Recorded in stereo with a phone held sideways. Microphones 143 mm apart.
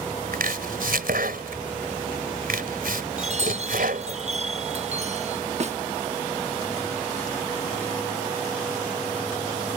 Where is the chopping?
85° right.